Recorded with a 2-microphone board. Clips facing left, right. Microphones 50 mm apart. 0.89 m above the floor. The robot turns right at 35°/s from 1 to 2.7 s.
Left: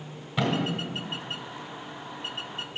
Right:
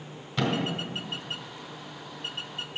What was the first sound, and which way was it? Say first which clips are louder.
A thud: left 1 dB; 15° left (ahead or behind).